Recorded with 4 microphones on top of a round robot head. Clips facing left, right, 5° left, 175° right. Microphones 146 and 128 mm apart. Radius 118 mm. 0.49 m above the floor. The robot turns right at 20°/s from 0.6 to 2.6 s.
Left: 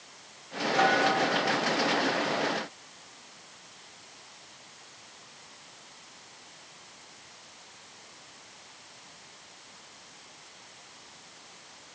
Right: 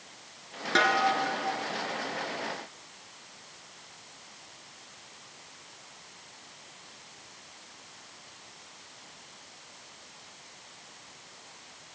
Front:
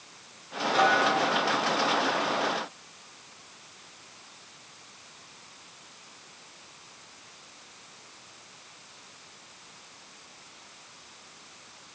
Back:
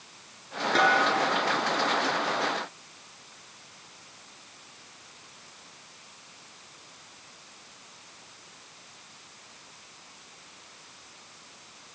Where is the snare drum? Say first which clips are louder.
Left 2 dB, even; 125° right, 2.5 m; by 1.0 s 120° right, 2.5 m.